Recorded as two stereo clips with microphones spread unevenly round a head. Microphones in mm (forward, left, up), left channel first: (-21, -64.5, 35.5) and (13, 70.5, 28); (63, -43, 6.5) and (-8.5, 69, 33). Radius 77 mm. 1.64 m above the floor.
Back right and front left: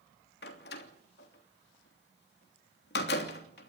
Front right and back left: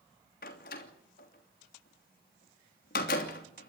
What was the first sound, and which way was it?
A door slam, 90° right.